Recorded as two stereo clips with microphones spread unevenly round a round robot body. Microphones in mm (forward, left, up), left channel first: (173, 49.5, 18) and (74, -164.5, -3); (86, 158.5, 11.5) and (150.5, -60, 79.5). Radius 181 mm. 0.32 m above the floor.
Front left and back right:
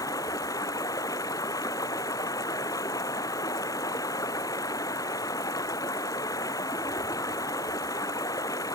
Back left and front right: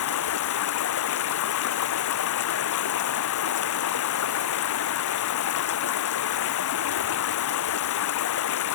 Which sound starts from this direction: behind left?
Running water, at 0.0 s.